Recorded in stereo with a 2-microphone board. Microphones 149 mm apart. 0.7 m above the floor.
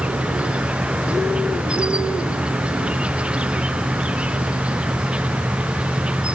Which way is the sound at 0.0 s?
5° right (ahead or behind).